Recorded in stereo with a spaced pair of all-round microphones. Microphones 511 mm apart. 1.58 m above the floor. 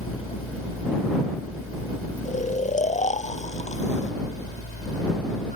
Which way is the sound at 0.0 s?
65° left (ahead or behind).